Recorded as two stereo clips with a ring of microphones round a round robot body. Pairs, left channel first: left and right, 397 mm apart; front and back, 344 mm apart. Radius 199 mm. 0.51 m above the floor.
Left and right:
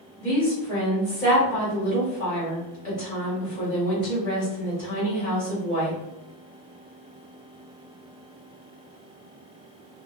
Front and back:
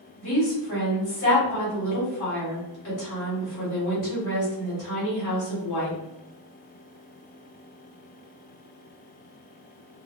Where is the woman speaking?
20° left, 1.5 m.